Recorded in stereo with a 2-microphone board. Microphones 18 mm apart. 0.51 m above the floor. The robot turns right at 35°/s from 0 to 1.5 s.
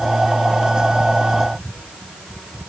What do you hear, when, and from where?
Only background noise.